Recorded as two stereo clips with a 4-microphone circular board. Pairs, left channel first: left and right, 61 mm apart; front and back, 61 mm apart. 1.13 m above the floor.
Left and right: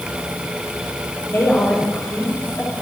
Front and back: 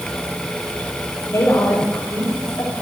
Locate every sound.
1.3 s a woman speaking: 40° left, 6 m